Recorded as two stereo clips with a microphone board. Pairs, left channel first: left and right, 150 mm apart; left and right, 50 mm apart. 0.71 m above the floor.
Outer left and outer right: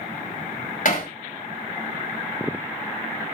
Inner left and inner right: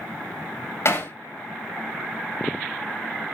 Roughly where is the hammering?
Left.